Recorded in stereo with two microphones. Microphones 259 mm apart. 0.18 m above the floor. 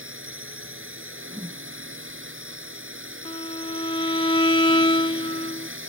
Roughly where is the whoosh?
Centre.